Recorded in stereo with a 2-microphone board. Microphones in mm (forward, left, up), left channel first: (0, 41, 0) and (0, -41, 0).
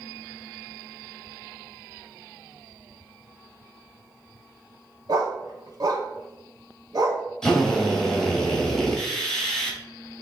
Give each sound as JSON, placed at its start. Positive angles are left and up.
{"t": 5.1, "sound": "a dog barking", "side_deg": -55, "distance_m": 0.9}
{"t": 7.4, "sound": "a drill", "side_deg": 5, "distance_m": 1.4}